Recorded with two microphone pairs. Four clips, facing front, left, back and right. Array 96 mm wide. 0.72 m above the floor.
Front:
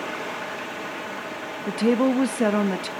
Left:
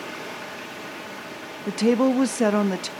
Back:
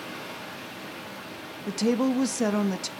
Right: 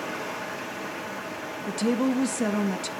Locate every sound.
0.0 s running water: 20° right, 1.1 m
1.7 s a woman speaking: 60° left, 0.5 m